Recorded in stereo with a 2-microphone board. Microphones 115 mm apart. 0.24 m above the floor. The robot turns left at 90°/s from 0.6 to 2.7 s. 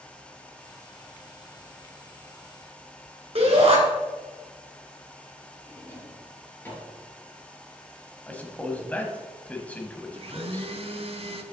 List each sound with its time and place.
3.4 s a shout: 55° right (ahead or behind), 2.5 m
5.7 s a drawer: 20° left (ahead or behind), 2.5 m
8.3 s a man speaking: 15° left (ahead or behind), 1.2 m
10.1 s a blender: 55° right (ahead or behind), 0.6 m